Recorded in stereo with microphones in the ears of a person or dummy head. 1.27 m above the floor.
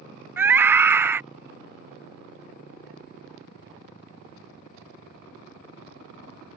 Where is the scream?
20° right (ahead or behind).